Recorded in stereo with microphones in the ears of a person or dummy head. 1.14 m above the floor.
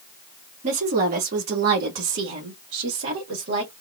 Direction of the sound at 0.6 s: 40° right (ahead or behind).